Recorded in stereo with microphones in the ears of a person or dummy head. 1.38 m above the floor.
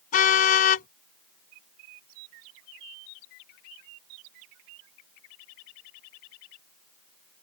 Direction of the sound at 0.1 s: 50° left (ahead or behind).